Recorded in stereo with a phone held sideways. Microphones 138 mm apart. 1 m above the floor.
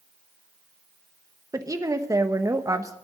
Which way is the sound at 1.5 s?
25° right (ahead or behind).